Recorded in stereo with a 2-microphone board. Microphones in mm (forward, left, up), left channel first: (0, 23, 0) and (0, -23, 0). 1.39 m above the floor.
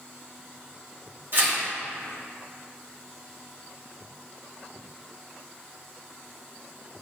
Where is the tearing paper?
55° right (ahead or behind), 3 m.